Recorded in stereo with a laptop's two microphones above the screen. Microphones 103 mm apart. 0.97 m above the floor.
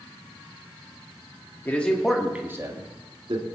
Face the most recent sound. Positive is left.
turn(degrees=-60)  # may be behind; listen again after turning